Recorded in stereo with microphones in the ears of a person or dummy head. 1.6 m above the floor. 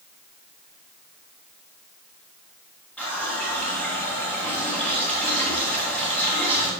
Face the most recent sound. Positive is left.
turn(degrees=5)  # may be behind; listen again after turning